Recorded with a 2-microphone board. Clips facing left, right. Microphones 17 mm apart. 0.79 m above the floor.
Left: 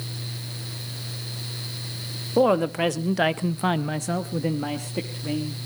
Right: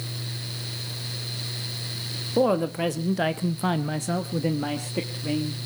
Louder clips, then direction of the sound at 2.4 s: Left 3 dB; 25° left (ahead or behind).